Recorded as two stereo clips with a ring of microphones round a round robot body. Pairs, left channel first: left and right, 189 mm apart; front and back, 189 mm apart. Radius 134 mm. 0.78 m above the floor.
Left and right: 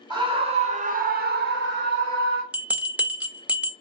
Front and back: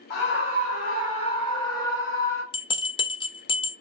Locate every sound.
0.1 s a scream: 25° right, 1.7 m; by 2.4 s 115° right, 1.3 m
2.5 s a bell: 15° right, 0.7 m